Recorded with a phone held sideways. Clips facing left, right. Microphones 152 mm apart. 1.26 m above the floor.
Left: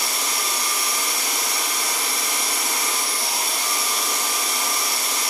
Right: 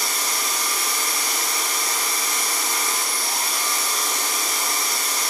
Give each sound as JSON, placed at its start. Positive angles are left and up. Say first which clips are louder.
{"t": 0.0, "sound": "a machine running", "louder": "even", "side_deg": 70, "distance_m": 2.5}